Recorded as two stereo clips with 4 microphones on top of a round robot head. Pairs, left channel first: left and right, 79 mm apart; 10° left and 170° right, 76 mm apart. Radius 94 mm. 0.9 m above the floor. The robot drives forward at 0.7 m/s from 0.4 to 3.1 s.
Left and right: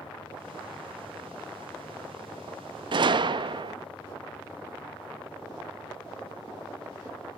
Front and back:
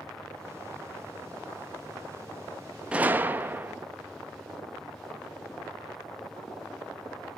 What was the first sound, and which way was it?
A gunshot, 95° right.